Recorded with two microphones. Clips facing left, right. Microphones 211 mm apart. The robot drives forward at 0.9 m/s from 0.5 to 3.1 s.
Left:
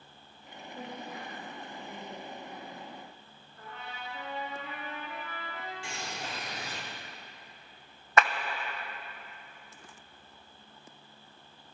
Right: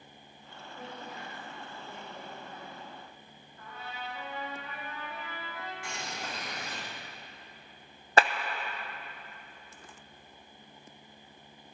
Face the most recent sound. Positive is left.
turn(degrees=-30)  # may be behind; listen again after turning